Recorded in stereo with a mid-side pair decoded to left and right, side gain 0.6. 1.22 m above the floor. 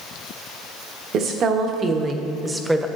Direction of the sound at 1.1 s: 55° right.